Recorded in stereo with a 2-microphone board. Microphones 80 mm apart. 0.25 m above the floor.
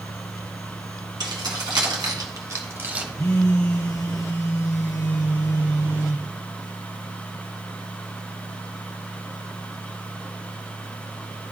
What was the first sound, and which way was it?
Keys jangling, 65° right (ahead or behind).